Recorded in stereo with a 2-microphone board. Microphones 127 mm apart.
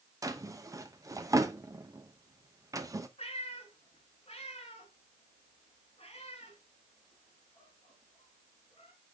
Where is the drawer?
25° right (ahead or behind), 0.8 m.